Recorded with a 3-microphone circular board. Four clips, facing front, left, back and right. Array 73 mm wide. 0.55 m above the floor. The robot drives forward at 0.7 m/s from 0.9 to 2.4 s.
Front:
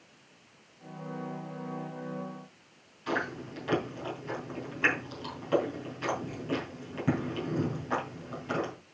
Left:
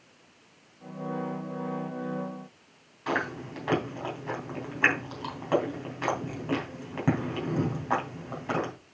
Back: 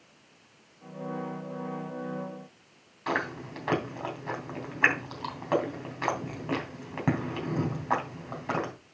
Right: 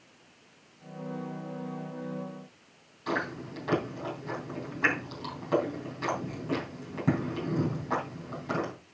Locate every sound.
3.1 s chewing: 160° left, 3 m